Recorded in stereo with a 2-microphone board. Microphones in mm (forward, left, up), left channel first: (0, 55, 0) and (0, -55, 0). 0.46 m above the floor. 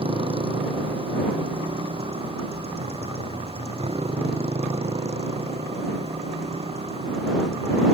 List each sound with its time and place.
0.0 s a motorcycle: 65° right (ahead or behind); by 7.9 s 80° right